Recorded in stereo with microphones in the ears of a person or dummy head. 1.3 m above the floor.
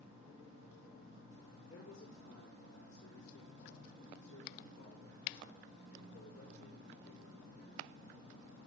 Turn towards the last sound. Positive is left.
turn(degrees=80)